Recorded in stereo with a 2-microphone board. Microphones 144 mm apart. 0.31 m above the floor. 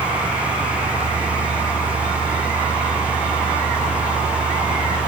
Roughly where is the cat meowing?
I don't hear a cat meowing.